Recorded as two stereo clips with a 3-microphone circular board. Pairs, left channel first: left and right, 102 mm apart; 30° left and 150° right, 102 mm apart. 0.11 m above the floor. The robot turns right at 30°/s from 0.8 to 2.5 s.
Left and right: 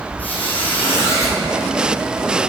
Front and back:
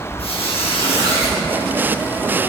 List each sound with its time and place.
0.2 s a squeak: 15° left, 1.1 m; by 1.4 s 35° left, 1.1 m